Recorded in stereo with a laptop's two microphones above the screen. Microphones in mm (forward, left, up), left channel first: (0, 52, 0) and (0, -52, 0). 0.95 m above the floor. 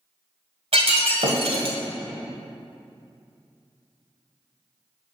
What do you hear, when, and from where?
0.7 s breaking glass: 70° right (ahead or behind), 1.5 m